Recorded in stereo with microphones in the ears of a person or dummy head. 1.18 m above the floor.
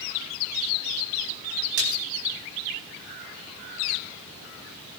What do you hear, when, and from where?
1.8 s a splash: 60° right (ahead or behind), 2.5 m